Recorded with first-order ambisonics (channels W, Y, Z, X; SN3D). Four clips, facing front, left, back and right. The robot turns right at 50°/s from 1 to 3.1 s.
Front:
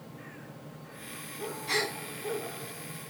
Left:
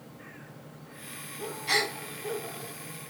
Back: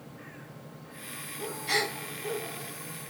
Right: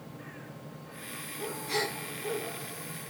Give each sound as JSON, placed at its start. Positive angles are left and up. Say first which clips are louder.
{"t": 1.7, "sound": "a gasp", "louder": "left 5 dB, back 2 dB", "azimuth_deg": 115, "distance_m": 1.5}